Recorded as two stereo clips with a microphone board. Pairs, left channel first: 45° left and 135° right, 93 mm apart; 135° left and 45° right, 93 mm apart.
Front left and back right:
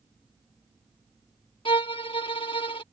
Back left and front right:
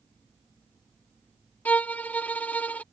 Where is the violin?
65° left.